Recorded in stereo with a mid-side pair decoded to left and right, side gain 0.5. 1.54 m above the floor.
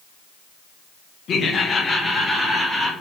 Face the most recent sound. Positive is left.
turn(degrees=0)